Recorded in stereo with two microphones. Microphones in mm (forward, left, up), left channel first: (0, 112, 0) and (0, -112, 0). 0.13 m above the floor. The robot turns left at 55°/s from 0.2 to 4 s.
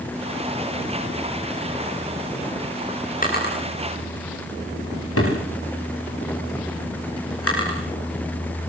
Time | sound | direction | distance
3.2 | a drawer | 35° left (ahead or behind) | 9.5 m